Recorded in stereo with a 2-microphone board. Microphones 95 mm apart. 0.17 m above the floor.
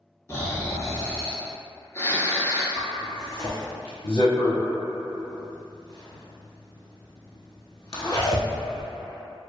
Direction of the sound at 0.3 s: 30° left (ahead or behind).